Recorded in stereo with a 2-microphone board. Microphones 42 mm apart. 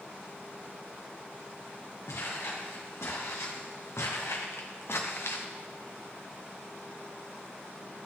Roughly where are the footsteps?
Left.